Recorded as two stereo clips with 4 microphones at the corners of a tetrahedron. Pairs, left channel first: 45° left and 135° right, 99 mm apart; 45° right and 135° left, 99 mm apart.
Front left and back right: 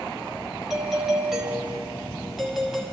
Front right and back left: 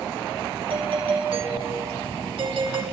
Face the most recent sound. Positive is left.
turn(degrees=140)